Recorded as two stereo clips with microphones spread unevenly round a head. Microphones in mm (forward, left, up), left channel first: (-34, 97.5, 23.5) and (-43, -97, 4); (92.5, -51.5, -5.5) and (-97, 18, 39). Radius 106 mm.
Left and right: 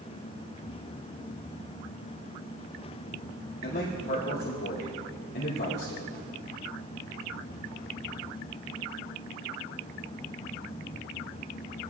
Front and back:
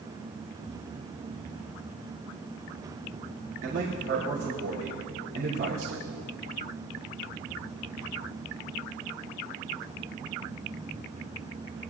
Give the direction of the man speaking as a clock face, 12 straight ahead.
8 o'clock.